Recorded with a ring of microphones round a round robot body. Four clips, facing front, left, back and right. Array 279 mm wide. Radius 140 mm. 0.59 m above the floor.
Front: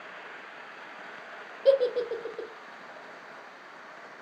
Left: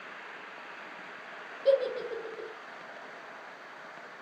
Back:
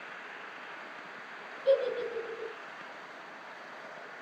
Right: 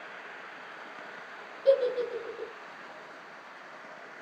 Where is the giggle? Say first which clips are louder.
Right 2 dB, front 4 dB; straight ahead, 0.5 m.